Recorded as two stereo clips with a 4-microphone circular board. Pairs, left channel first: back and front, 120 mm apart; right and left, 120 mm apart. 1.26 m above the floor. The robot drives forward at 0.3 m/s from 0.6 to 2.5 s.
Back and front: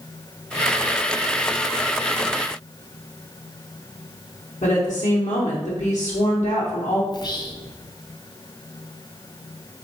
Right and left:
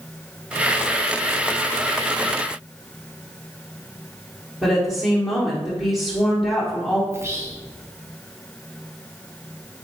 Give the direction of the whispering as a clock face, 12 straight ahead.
7 o'clock.